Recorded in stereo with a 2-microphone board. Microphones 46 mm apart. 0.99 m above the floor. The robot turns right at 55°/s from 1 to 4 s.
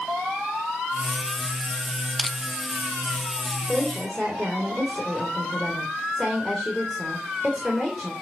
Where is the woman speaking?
15° left (ahead or behind), 3 m; by 8.1 s 5° right (ahead or behind), 3 m.